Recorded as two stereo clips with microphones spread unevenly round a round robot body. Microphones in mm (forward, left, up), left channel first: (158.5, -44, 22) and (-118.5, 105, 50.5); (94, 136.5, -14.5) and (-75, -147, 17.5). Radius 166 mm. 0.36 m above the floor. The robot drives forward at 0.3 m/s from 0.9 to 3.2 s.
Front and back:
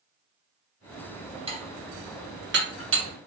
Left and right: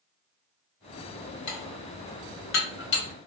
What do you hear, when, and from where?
1.5 s dishes clattering: 80° left, 1.2 m; by 3.1 s 110° left, 1.2 m